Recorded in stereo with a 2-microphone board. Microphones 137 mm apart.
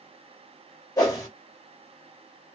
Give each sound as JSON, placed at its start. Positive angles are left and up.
{"t": 1.0, "sound": "a whoosh", "side_deg": 25, "distance_m": 1.1}